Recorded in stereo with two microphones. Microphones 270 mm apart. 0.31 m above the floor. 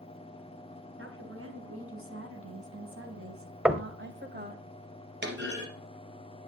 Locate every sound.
1.0 s a woman speaking: 50° right (ahead or behind), 4 m; by 4.7 s 30° right (ahead or behind), 1.6 m
3.6 s knocking: 5° right (ahead or behind), 0.8 m
5.2 s a clunk: 40° right (ahead or behind), 3.5 m